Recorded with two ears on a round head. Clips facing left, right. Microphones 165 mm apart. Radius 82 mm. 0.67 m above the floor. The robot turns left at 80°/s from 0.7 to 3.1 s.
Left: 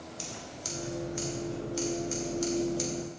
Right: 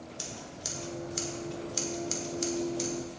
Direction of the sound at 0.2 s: 15° right (ahead or behind).